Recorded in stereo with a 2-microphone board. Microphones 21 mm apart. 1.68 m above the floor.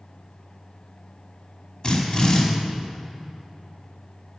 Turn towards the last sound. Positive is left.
turn(degrees=40)  # may be behind; listen again after turning